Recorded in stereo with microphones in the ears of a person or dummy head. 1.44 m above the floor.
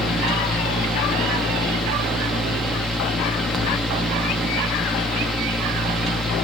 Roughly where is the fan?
Centre.